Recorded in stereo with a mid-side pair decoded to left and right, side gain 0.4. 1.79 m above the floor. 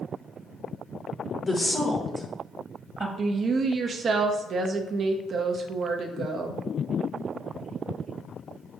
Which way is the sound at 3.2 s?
55° right.